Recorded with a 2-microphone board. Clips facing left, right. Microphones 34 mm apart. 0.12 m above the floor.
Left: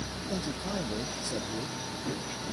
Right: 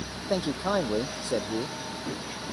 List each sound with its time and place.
0.3 s a man speaking: 55° right (ahead or behind)